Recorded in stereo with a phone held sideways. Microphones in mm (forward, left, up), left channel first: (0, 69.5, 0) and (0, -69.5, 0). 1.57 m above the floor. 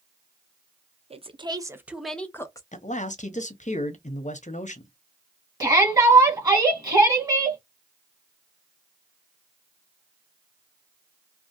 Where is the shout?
25° right (ahead or behind), 1.2 m.